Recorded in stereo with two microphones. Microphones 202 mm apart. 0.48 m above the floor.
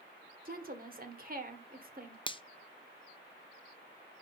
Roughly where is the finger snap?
Left.